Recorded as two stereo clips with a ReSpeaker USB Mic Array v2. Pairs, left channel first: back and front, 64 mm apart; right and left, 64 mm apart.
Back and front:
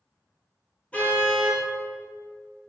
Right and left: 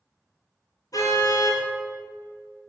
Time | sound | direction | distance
0.9 | a car horn | 115° right | 5 m